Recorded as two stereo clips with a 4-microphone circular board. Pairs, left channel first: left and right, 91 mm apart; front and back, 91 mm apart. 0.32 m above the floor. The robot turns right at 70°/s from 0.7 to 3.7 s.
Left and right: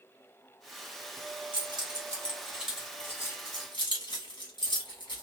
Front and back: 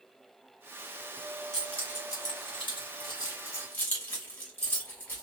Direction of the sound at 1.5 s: 85° right.